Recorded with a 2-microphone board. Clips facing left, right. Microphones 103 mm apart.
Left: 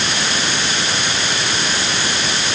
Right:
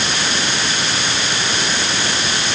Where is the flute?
No flute in this recording.